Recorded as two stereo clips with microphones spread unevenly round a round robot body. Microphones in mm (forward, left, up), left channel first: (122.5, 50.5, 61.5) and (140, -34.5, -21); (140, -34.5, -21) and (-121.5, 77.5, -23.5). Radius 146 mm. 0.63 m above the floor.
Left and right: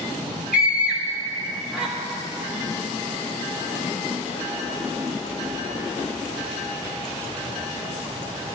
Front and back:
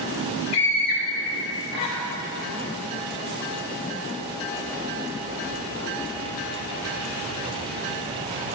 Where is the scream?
25° right, 2.5 m.